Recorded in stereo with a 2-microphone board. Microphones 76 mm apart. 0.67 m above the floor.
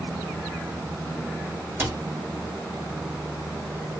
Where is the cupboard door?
30° right (ahead or behind), 1.3 m.